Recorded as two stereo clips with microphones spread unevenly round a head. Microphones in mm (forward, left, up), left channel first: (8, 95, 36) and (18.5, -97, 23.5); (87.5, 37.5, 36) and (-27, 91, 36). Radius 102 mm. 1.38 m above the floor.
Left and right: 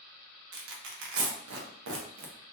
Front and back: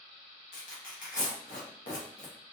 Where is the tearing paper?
70° right, 0.6 m.